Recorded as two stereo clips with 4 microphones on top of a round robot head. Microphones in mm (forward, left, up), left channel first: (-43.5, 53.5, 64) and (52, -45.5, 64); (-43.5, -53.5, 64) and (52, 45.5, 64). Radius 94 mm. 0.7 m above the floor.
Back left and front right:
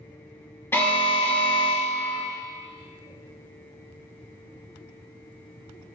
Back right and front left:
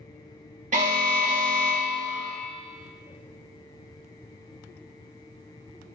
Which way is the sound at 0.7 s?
60° left.